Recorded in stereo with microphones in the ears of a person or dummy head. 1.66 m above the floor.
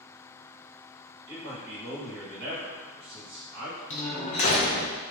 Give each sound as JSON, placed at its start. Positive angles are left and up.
{"t": 1.3, "sound": "a man speaking", "side_deg": -60, "distance_m": 1.3}
{"t": 3.9, "sound": "a door slam", "side_deg": 30, "distance_m": 0.5}